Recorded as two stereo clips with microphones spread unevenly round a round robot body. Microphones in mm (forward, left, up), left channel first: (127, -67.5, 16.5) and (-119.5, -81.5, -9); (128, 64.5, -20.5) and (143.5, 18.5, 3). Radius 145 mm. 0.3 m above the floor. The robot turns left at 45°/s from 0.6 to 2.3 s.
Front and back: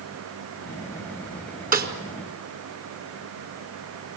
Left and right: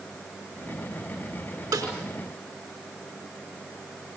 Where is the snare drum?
125° right, 3.5 m; by 1.9 s 135° right, 3.5 m.